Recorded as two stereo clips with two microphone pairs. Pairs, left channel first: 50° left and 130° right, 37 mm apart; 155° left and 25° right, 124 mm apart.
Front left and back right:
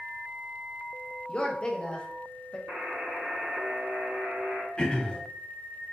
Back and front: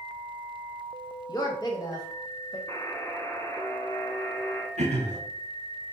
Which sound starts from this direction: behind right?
A buzzer, at 2.7 s.